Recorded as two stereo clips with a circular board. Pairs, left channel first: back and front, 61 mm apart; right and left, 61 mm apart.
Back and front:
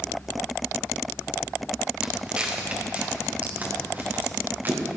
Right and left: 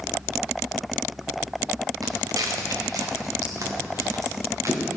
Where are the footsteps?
75° left, 2.5 m; by 4.8 s 55° left, 4 m.